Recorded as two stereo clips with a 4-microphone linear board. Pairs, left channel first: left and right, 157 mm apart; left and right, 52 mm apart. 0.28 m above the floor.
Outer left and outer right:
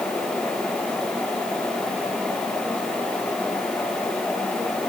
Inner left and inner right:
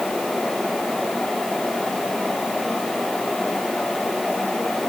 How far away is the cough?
I don't hear a cough.